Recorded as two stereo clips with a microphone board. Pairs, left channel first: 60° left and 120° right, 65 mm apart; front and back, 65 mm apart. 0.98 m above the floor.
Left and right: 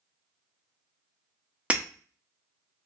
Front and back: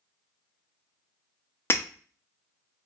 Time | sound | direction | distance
1.7 | breaking glass | 50° right | 0.7 m